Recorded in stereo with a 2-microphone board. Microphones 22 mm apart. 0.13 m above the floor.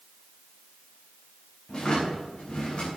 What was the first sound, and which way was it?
A drawer, 40° left (ahead or behind).